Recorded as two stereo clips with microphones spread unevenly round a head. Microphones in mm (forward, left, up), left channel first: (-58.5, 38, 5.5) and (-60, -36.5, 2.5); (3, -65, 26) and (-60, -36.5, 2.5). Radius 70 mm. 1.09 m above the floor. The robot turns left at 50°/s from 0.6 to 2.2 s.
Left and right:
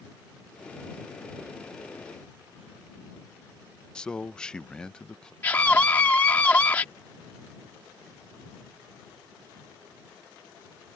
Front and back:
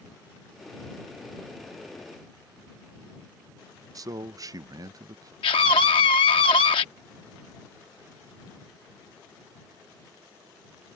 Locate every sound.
4.0 s a man speaking: 170° left
5.4 s a scream: 10° left